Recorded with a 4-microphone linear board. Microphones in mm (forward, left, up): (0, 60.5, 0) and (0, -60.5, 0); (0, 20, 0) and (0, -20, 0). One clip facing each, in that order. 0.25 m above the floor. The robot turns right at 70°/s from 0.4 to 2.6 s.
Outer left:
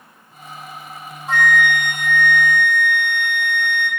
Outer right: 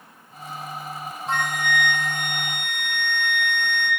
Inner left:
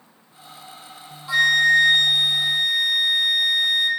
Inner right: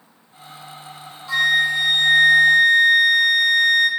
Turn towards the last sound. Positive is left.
turn(degrees=-95)